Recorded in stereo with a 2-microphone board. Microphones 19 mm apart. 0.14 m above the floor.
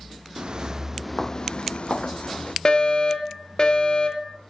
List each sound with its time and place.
0.4 s footsteps: 50° right (ahead or behind), 1.3 m; by 2.5 s 80° left, 2 m
2.6 s a fire alarm: 45° left (ahead or behind), 3.5 m